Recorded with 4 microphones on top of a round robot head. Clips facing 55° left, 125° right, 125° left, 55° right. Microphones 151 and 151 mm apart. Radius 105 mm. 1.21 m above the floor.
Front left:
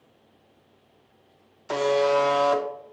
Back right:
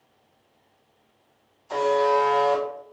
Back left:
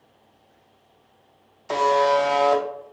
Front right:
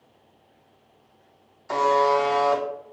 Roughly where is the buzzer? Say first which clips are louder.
Even, back left 1 dB; ahead left.